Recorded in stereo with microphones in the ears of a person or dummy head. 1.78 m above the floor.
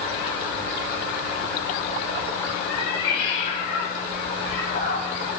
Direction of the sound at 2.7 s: 45° left (ahead or behind).